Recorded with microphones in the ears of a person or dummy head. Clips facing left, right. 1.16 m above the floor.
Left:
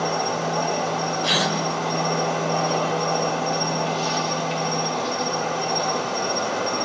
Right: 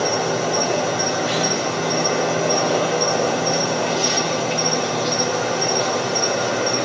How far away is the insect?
About 3.5 m.